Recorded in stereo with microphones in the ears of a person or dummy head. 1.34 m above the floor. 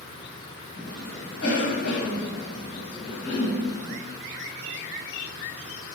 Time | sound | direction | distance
0.8 | a cough | 70° left (ahead or behind) | 1.7 m